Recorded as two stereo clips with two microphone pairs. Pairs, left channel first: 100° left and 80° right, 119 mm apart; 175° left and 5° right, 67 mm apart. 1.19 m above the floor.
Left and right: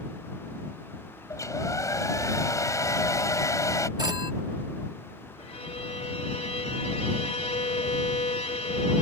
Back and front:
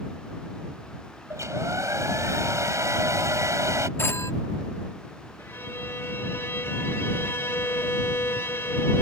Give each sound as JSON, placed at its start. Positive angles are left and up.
{"t": 1.3, "sound": "a hair dryer", "azimuth_deg": 35}
{"t": 4.0, "sound": "a phone ringing", "azimuth_deg": -135}
{"t": 5.4, "sound": "a violin", "azimuth_deg": 120}